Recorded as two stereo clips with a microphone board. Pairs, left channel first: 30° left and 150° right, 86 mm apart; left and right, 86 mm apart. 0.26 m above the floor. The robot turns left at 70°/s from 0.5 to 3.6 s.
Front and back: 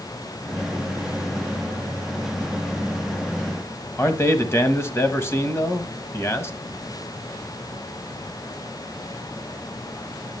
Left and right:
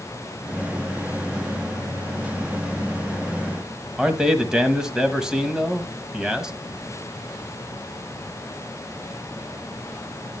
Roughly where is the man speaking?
Ahead.